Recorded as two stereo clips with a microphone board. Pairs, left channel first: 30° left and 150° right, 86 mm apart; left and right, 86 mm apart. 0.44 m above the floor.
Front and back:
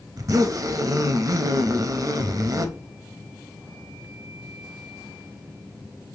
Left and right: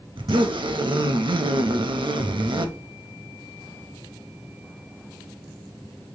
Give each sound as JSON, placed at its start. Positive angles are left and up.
{"t": 0.2, "sound": "a zipper", "azimuth_deg": -110, "distance_m": 0.5}